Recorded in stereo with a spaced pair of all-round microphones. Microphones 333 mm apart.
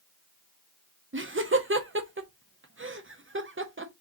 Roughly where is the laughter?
Right.